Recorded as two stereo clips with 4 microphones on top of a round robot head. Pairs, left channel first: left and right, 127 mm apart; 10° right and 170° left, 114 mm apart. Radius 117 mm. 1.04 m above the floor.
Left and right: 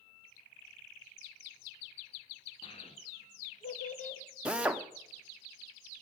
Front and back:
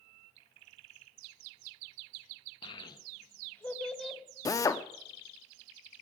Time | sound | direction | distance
2.6 | a child speaking | 35° left | 1.6 m
4.5 | a drill | 15° right | 0.8 m